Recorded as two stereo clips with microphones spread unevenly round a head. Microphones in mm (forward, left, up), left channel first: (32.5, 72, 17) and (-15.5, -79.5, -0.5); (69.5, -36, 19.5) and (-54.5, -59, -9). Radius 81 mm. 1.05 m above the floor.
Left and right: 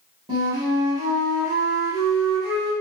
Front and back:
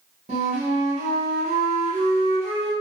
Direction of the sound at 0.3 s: 165° right.